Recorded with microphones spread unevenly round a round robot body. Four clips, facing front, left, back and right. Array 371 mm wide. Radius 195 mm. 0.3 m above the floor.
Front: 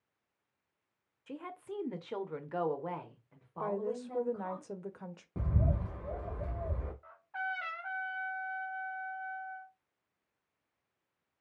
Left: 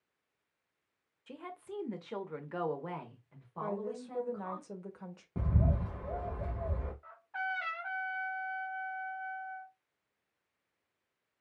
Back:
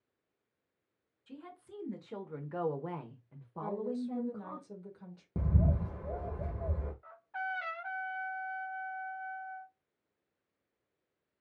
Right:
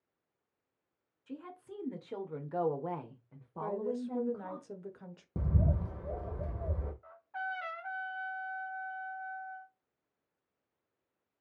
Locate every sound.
1.3 s a woman speaking: 20° left, 1.3 m; by 4.6 s 145° right, 1.8 m
3.6 s a woman speaking: straight ahead, 1.0 m
5.4 s a bird: 145° right, 1.4 m
7.0 s a trumpet: 155° right, 1.5 m